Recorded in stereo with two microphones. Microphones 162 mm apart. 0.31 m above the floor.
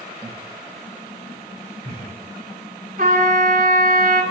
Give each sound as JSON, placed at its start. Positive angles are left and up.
{"t": 0.2, "sound": "laughter", "side_deg": -20, "distance_m": 1.0}
{"t": 3.0, "sound": "a trumpet", "side_deg": -60, "distance_m": 1.6}